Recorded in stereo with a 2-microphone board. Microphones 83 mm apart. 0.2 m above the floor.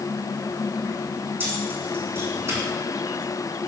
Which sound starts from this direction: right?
Keys jangling, at 1.4 s.